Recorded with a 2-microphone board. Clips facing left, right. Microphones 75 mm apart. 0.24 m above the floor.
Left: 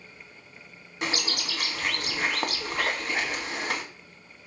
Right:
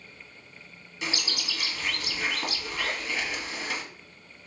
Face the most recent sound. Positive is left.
turn(degrees=50)  # may be behind; listen again after turning